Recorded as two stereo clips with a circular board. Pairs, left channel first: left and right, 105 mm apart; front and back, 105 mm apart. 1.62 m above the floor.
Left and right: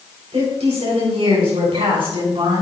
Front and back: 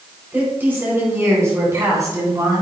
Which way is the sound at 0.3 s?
105° right.